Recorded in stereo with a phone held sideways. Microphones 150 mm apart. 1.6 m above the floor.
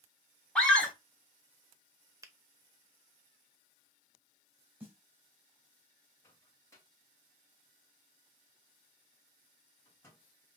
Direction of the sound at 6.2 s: 15° left (ahead or behind).